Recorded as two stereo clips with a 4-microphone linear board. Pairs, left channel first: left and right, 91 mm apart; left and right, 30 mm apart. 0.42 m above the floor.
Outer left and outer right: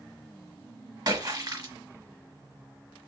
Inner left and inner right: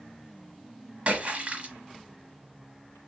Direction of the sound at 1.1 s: 45° right (ahead or behind).